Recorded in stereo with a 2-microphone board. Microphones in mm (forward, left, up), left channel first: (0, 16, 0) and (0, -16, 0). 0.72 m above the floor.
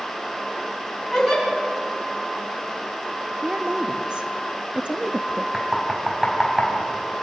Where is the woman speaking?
30° right (ahead or behind), 0.7 m.